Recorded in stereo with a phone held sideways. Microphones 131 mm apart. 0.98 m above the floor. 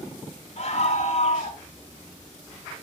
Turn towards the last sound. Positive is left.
turn(degrees=55)  # may be behind; listen again after turning